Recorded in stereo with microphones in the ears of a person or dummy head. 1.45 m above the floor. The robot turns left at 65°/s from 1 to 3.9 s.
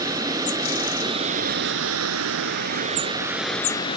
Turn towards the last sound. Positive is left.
turn(degrees=150)